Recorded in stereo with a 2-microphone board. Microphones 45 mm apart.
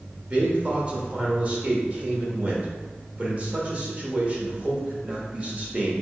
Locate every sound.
0.3 s a man speaking: 35° right (ahead or behind), 0.9 m